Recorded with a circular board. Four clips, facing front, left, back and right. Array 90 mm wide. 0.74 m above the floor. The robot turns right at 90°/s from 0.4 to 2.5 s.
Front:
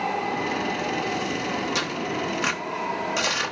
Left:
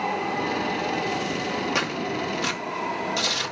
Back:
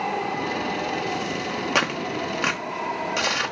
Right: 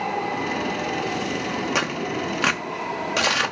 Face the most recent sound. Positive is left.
turn(degrees=-100)